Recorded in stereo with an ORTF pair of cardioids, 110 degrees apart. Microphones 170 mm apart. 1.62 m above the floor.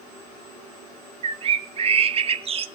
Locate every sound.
1.2 s a bird: 35° right, 1.0 m